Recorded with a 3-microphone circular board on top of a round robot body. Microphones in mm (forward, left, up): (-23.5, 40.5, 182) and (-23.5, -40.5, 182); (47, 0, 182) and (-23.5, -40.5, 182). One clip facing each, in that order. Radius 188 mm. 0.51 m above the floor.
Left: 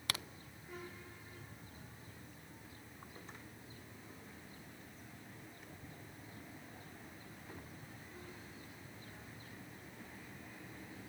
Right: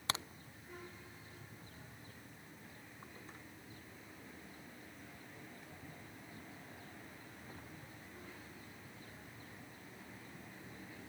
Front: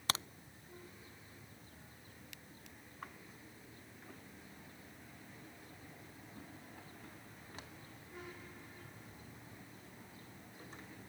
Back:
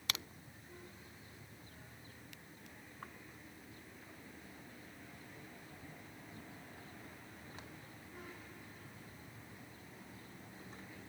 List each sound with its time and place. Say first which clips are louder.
0.1 s a crack: right 3 dB, front 5 dB; 25° right